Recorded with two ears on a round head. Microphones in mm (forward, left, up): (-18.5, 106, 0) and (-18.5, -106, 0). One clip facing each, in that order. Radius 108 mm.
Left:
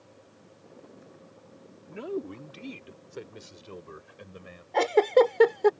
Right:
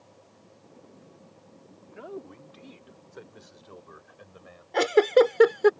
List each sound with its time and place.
1.9 s a man speaking: 45° left (ahead or behind); by 4.6 s 35° left (ahead or behind)
4.7 s a giggle: 15° right (ahead or behind)